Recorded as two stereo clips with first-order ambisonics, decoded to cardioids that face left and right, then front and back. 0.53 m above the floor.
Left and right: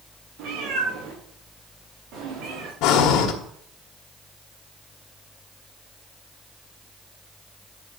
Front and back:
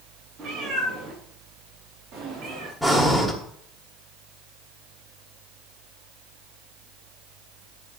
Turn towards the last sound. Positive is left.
turn(degrees=90)